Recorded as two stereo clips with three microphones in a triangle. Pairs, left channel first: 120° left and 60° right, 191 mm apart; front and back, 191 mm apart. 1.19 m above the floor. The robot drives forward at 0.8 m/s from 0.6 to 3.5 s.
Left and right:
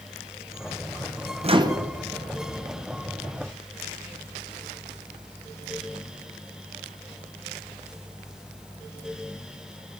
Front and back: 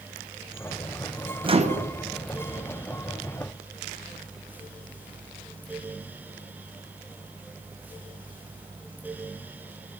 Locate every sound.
1.4 s a microwave: 120° right, 0.6 m; by 1.9 s 140° right, 0.8 m